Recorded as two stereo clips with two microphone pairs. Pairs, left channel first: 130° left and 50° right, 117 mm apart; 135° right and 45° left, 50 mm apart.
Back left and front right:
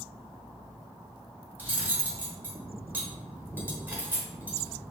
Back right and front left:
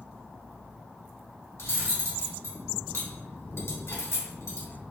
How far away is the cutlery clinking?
About 1.0 m.